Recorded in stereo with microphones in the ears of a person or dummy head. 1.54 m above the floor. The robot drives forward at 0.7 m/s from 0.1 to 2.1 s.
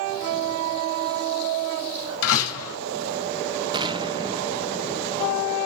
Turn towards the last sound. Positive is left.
turn(degrees=-20)  # may be behind; listen again after turning